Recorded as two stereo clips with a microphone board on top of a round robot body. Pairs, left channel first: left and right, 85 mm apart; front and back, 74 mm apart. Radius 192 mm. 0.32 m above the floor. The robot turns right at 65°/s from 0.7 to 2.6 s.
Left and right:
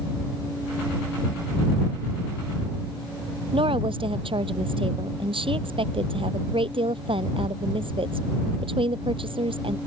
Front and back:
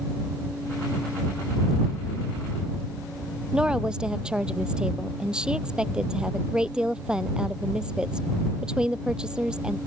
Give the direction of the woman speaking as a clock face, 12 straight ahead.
3 o'clock.